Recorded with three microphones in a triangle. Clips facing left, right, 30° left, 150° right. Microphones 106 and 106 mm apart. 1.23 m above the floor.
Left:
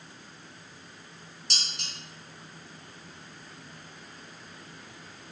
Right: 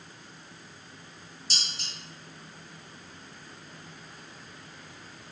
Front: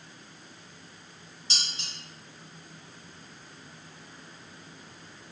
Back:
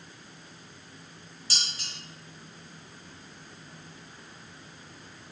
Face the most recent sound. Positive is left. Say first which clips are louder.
# even, even
turn(degrees=95)